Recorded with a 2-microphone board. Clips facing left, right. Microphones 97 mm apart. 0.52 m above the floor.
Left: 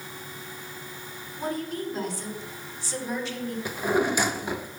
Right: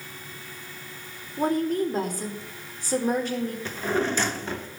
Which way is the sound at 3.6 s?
10° left (ahead or behind).